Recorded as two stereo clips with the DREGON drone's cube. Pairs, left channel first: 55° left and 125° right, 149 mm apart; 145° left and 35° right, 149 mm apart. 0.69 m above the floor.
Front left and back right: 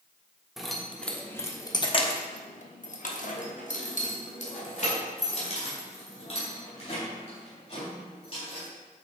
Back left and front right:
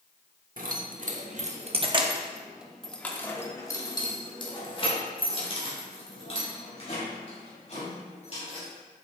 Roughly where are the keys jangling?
Ahead right.